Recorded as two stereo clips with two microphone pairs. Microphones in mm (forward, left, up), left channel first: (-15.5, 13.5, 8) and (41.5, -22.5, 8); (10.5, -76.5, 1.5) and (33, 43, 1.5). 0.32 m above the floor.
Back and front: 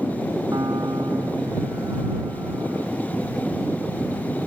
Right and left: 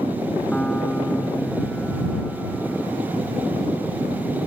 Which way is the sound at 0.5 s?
20° right.